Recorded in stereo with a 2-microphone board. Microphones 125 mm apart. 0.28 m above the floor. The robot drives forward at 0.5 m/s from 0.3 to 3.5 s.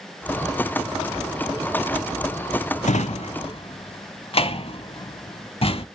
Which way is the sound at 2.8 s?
70° left (ahead or behind).